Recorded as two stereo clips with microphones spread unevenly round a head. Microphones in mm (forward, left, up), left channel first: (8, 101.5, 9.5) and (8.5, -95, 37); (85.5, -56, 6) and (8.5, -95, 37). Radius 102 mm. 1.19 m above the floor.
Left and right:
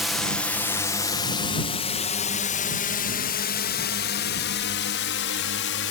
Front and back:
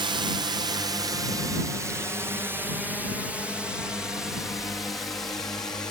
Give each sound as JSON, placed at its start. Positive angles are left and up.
{"t": 0.0, "sound": "a drone", "azimuth_deg": 170}